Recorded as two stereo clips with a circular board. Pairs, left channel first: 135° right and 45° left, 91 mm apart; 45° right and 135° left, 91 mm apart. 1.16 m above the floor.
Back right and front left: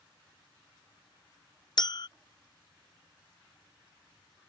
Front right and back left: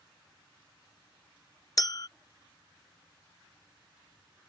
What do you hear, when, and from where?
1.8 s a clink: 95° right